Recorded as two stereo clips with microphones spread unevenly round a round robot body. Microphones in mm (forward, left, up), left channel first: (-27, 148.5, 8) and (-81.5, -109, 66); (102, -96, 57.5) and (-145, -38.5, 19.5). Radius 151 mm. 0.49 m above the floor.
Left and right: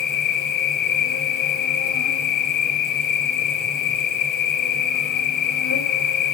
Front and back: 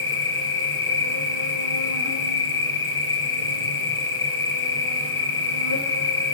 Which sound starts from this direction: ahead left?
An insect, at 0.0 s.